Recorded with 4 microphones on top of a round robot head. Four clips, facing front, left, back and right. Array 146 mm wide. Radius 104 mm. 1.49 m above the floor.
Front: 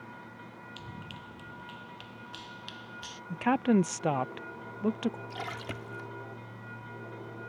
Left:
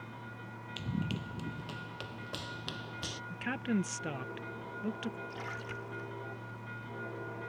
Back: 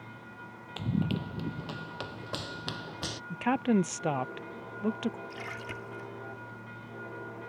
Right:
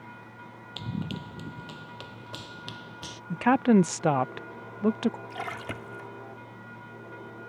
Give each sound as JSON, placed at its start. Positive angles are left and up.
{"t": 0.8, "sound": "running footsteps", "azimuth_deg": -160}
{"t": 3.3, "sound": "a woman speaking", "azimuth_deg": -85}
{"t": 5.3, "sound": "a splash", "azimuth_deg": -65}